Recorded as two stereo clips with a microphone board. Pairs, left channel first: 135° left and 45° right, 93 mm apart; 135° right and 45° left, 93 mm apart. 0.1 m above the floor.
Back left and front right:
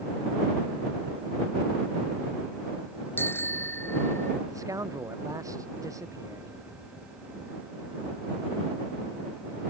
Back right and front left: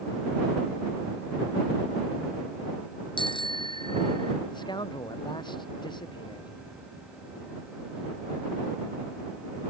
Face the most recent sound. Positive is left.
turn(degrees=-100)